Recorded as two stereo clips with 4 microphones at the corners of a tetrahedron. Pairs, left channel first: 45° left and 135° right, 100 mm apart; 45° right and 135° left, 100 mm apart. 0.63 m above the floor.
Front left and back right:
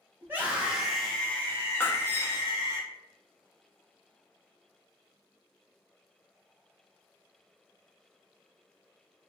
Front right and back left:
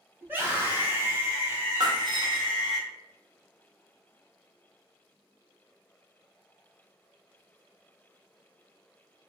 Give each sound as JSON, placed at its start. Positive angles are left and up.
{"t": 0.2, "sound": "a scream", "azimuth_deg": -175, "distance_m": 1.1}
{"t": 1.8, "sound": "breaking glass", "azimuth_deg": 105, "distance_m": 0.6}